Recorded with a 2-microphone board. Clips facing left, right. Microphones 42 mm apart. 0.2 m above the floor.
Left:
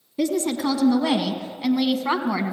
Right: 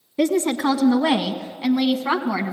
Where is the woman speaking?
40° right (ahead or behind), 1.8 m; by 2.5 s centre (ahead or behind), 1.7 m.